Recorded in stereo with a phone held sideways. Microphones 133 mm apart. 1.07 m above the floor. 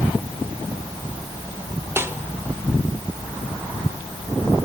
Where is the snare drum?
20° right (ahead or behind), 1.9 m.